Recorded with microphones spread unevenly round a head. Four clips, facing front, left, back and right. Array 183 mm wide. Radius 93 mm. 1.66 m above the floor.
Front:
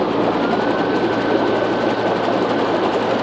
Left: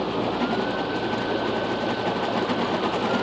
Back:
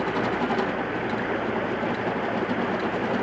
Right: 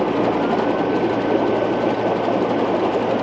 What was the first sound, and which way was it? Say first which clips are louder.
Running water: right 7 dB, front 8 dB; 40° right.